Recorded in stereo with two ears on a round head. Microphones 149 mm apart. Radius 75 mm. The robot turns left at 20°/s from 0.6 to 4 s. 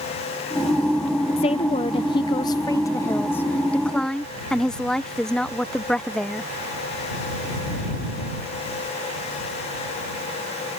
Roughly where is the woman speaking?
Ahead left.